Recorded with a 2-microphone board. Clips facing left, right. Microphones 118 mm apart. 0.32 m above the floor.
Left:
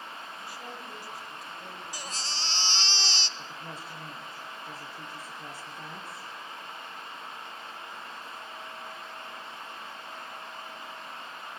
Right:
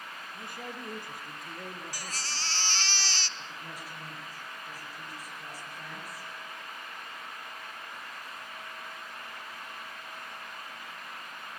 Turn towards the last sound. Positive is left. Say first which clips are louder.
# left 2 dB
turn(degrees=25)  # may be behind; listen again after turning